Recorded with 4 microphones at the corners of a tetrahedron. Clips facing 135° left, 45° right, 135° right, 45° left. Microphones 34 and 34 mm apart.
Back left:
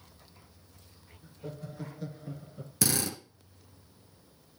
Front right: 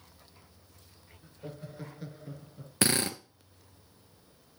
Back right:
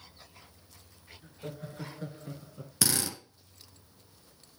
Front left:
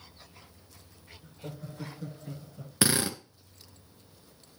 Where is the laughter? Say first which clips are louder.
Back left 2 dB, back right 1 dB; 105° right, 2 m; by 2.7 s 175° right, 1.3 m.